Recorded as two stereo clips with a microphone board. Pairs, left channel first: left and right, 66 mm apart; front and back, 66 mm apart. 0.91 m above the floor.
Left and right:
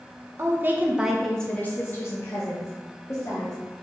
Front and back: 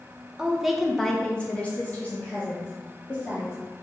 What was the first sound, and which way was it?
A woman speaking, 105° right.